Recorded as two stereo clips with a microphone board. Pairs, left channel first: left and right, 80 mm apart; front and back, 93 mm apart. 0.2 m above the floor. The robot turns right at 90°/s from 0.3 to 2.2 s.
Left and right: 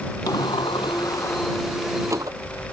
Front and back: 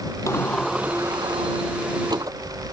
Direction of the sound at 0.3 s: 55° left.